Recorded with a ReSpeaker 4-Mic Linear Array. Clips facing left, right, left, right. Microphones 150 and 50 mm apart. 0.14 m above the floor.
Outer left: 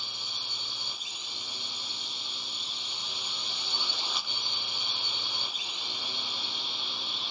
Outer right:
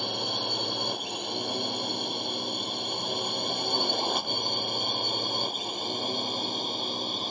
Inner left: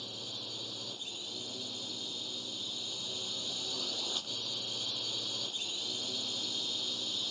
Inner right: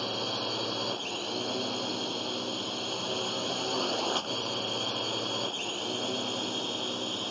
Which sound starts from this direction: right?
A drone, at 0.0 s.